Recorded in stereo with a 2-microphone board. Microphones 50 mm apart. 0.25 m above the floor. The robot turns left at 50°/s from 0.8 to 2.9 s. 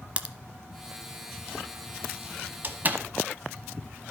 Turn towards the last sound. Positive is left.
turn(degrees=-35)  # may be behind; listen again after turning